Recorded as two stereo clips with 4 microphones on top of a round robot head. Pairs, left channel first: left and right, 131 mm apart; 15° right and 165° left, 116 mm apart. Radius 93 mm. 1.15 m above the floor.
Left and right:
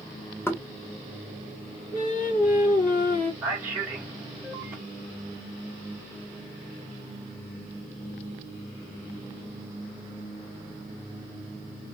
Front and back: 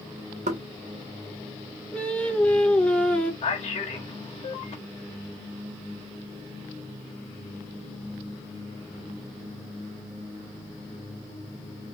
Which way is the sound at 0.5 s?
160° left.